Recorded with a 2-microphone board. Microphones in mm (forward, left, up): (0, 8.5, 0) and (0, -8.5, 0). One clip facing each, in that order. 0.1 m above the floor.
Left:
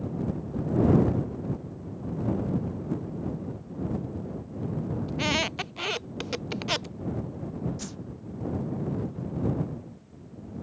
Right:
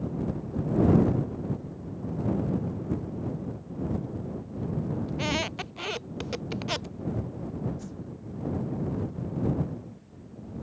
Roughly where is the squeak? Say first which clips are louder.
Left 4 dB; centre.